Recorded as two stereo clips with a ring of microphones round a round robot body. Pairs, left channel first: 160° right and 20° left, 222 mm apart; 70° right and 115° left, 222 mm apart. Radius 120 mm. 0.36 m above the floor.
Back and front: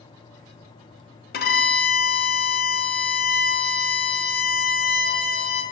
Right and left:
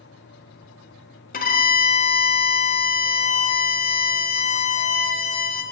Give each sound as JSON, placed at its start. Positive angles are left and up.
{"t": 1.3, "sound": "a violin", "azimuth_deg": -115, "distance_m": 0.7}